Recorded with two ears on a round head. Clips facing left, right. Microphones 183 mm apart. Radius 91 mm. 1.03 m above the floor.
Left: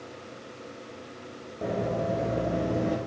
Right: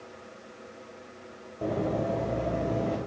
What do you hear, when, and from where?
1.6 s running footsteps: centre (ahead or behind), 2 m; by 3.0 s 20° left (ahead or behind), 1.7 m